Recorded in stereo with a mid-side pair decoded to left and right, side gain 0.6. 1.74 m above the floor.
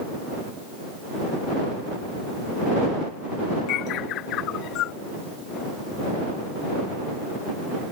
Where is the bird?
60° left.